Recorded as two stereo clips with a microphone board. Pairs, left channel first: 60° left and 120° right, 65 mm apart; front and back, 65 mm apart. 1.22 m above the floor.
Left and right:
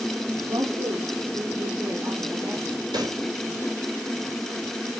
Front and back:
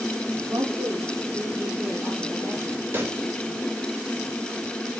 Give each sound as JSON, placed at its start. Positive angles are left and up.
{"t": 0.4, "sound": "a woman speaking", "azimuth_deg": -140, "distance_m": 3.0}
{"t": 2.9, "sound": "a pop", "azimuth_deg": -120, "distance_m": 5.0}